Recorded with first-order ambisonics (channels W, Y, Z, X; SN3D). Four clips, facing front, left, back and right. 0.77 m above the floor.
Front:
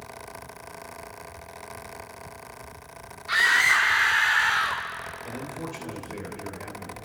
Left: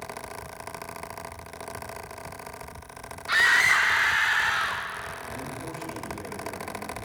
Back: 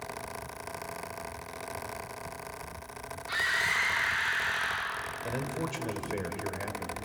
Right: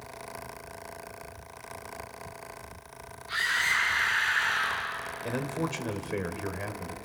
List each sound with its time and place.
3.3 s a scream: 60° left, 1.4 m; by 4.8 s 20° left, 2 m
5.2 s a man speaking: 115° right, 3 m